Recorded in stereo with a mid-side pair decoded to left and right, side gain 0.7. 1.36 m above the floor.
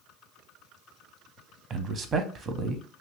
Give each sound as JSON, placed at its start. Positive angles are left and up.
{"t": 1.7, "sound": "a man speaking", "azimuth_deg": -35, "distance_m": 0.7}